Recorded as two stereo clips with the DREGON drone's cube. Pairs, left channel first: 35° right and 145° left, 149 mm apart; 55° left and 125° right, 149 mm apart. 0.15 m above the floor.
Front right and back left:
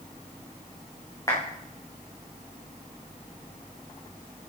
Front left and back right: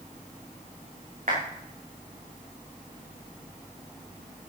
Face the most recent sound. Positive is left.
turn(degrees=-100)